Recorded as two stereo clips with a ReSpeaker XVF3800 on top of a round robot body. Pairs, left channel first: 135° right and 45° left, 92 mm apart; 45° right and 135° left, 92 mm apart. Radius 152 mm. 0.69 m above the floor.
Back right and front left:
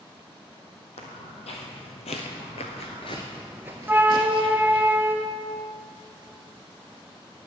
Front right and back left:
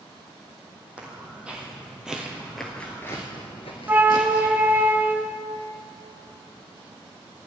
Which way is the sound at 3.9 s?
90° left.